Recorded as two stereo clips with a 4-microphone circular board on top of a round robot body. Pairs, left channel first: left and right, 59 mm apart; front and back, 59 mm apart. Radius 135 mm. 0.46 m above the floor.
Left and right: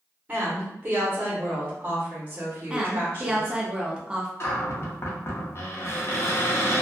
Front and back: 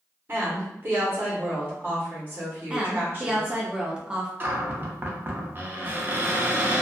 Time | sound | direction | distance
0.3 | a woman speaking | 140° right | 1.2 m
2.7 | a woman speaking | 135° right | 0.7 m
4.4 | a cupboard door | 125° left | 0.7 m